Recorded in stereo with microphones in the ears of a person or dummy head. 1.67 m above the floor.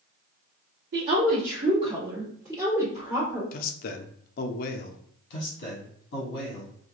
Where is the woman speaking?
50° right (ahead or behind), 0.8 m; by 3.4 s 10° right (ahead or behind), 1.6 m.